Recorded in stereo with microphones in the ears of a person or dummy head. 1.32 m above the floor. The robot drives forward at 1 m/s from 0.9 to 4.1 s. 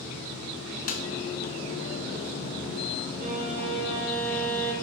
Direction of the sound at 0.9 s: 50° left (ahead or behind).